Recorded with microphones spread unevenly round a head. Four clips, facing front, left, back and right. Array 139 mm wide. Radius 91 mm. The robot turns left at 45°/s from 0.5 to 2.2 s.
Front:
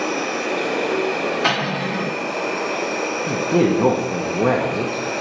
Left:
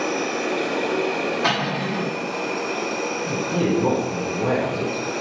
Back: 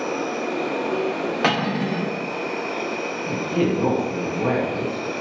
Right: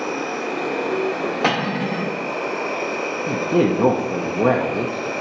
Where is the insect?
45° left, 1.4 m; by 5.2 s 30° right, 1.4 m.